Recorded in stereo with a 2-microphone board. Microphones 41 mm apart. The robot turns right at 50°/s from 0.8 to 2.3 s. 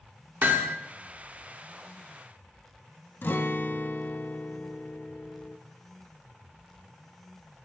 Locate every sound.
0.4 s hammering: 55° right (ahead or behind), 1.2 m
3.2 s a guitar: 60° left (ahead or behind), 0.6 m